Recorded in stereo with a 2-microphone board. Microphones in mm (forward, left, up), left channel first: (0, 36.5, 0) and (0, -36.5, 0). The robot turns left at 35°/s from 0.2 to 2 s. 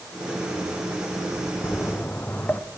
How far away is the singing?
I don't hear singing.